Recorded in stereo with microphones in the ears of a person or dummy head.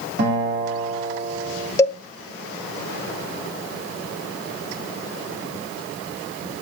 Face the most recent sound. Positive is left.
turn(degrees=20)  # may be behind; listen again after turning